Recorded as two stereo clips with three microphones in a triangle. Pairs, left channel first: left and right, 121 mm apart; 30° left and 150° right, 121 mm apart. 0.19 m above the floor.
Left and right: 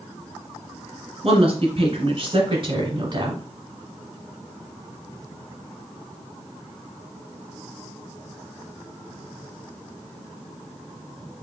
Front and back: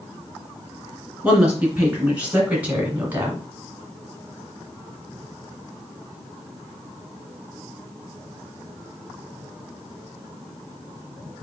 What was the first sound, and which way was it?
A woman speaking, 70° right.